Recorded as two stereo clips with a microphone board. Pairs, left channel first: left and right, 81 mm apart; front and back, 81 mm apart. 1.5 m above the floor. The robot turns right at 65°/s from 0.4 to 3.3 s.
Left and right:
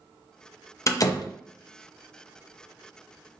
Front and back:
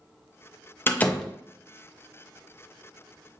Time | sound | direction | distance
0.9 | a door slam | 55° left | 0.5 m